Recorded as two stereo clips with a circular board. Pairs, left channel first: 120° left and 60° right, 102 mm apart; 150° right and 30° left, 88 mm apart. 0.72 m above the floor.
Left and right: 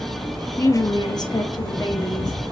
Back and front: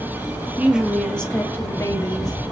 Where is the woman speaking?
85° left, 0.5 m; by 2.4 s 170° left, 1.0 m.